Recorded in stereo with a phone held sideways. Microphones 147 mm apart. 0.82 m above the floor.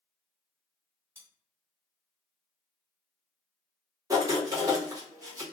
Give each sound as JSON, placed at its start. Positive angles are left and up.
{"t": 1.1, "sound": "cutlery clinking", "side_deg": -20, "distance_m": 1.1}
{"t": 4.1, "sound": "writing", "side_deg": -25, "distance_m": 1.0}